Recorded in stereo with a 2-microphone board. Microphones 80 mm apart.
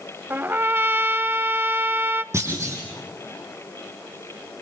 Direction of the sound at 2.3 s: 40° right (ahead or behind).